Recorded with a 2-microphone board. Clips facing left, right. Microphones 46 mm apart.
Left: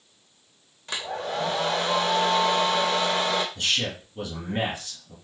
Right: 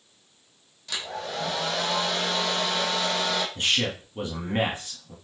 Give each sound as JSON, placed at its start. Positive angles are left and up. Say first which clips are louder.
{"t": 0.9, "sound": "a hair dryer", "louder": "left 3 dB", "side_deg": 35, "distance_m": 1.2}
{"t": 3.5, "sound": "a man speaking", "louder": "right 1 dB", "side_deg": -35, "distance_m": 1.6}